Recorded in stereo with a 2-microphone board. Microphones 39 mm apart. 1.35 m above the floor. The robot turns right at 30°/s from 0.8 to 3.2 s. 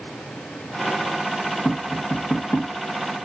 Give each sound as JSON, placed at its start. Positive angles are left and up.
{"t": 1.6, "sound": "tapping", "side_deg": 20, "distance_m": 1.1}